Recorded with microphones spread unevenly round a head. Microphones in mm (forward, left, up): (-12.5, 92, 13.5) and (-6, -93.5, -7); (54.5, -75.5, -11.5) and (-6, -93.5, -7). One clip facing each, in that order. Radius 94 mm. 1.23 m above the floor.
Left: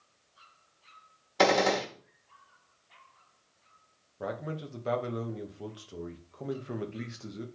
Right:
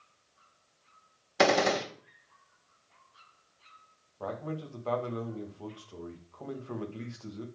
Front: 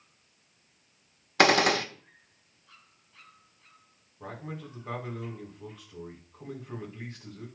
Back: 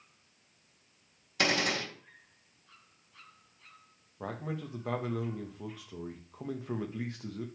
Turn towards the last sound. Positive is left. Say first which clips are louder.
# even, back 2 dB
turn(degrees=160)